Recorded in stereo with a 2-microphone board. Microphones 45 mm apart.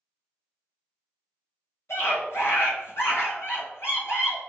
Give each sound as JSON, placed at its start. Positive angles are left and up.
{"t": 1.9, "sound": "a scream", "side_deg": 75, "distance_m": 2.0}